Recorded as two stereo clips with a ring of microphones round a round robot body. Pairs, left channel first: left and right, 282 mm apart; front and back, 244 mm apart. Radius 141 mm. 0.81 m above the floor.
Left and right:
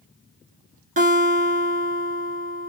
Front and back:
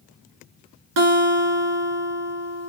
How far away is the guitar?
About 1.8 m.